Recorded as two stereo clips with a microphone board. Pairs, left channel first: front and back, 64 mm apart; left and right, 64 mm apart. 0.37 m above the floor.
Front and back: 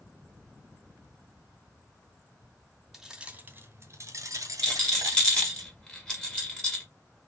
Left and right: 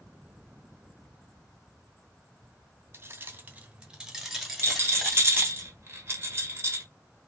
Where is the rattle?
70° right, 1.7 m.